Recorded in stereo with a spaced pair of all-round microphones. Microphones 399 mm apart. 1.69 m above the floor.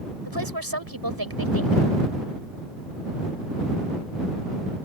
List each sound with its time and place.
0.2 s a woman speaking: 65° right (ahead or behind)